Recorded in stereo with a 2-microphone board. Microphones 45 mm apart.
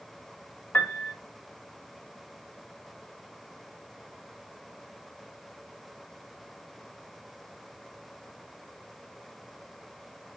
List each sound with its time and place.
0.7 s a piano: 45° left (ahead or behind), 1.4 m